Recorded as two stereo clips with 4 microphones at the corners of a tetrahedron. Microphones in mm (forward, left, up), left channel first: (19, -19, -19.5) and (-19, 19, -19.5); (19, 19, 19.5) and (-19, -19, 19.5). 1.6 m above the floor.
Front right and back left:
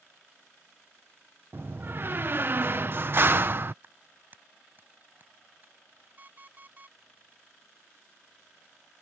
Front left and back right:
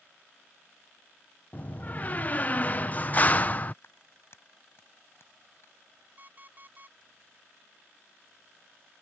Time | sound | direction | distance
1.5 | a door slam | 100° left | ?
3.8 | a clap | 85° left | ?
6.2 | an alarm clock | 175° right | ?